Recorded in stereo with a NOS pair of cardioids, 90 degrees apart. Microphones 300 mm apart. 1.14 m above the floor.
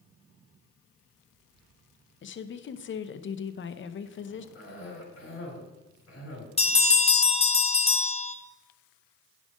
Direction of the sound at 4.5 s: 45° left.